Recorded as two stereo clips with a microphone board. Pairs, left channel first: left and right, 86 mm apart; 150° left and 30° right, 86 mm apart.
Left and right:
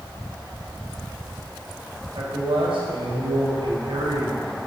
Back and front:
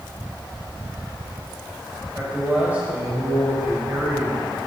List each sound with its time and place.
2.1 s a man speaking: 100° right, 5 m